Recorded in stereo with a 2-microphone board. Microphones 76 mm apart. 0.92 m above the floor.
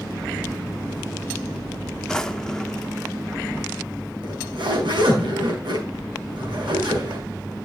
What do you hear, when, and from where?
2.1 s a drawer: 10° left (ahead or behind), 0.7 m
4.2 s a zipper: 90° right, 5 m